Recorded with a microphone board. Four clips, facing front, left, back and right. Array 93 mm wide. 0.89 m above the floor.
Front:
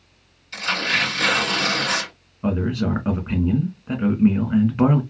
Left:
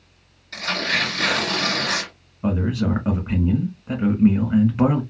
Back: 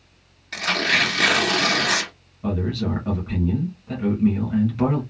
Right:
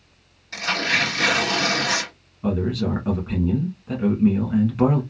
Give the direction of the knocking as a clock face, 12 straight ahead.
I don't hear knocking.